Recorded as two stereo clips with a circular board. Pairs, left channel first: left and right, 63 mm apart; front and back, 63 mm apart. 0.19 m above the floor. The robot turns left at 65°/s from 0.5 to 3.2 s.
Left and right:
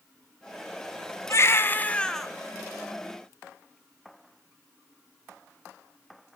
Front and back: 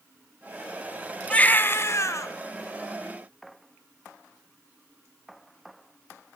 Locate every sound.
1.3 s a baby crying: 65° left, 0.7 m; by 2.3 s 5° left, 0.7 m